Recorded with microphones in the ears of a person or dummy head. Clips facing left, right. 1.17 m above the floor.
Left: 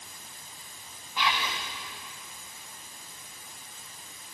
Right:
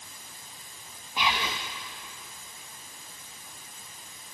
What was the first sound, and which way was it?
Whispering, 15° right (ahead or behind).